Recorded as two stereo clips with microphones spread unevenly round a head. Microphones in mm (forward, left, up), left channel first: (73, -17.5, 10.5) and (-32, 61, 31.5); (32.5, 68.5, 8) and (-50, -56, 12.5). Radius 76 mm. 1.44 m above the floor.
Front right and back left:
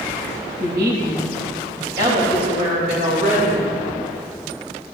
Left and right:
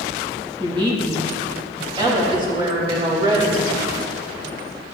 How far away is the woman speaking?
About 2.0 m.